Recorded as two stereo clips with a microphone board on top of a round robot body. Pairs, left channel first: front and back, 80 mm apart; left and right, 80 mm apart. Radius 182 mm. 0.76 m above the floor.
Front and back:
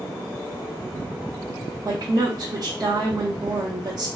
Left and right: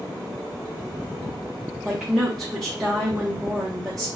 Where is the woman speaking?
Straight behind, 1.1 m.